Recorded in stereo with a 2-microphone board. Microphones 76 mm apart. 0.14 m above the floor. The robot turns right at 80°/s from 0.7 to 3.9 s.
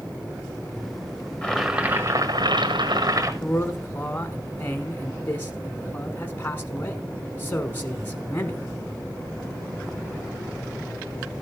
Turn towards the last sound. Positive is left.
turn(degrees=25)  # may be behind; listen again after turning